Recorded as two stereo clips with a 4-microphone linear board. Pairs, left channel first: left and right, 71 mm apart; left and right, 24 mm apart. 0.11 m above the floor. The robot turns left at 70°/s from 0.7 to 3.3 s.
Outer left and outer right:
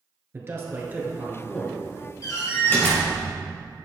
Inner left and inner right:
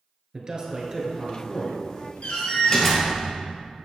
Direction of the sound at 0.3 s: 120° right.